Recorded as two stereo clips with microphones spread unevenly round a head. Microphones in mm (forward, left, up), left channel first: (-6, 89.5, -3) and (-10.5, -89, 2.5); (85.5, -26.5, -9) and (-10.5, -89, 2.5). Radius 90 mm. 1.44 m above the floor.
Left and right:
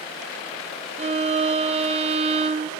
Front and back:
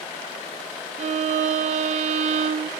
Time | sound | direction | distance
1.0 | a violin | 145° right | 0.6 m